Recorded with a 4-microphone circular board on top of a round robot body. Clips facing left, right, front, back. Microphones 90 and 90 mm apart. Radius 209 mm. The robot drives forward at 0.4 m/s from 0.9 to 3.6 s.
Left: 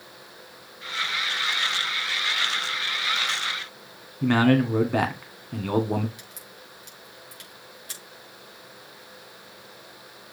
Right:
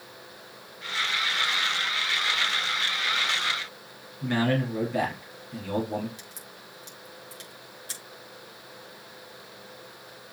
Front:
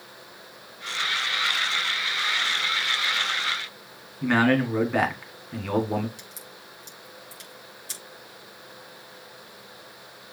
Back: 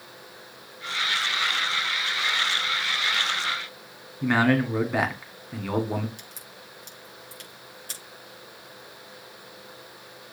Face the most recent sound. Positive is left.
turn(degrees=-145)